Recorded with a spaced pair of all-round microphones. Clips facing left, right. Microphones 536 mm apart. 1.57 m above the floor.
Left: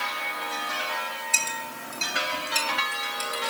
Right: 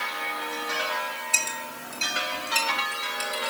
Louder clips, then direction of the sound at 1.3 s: Even; 40° left (ahead or behind).